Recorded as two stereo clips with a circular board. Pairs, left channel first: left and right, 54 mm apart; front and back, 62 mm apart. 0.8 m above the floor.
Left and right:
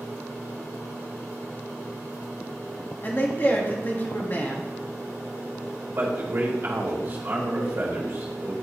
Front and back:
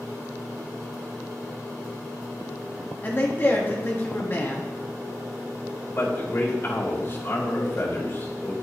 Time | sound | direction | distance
3.0 | a man speaking | 50° left | 1.3 m
6.0 | a man speaking | 50° right | 2.5 m